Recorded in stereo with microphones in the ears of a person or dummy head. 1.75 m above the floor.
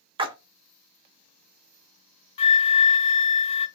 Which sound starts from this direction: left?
A flute, at 2.4 s.